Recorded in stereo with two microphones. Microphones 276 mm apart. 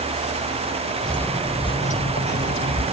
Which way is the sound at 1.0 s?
Centre (ahead or behind).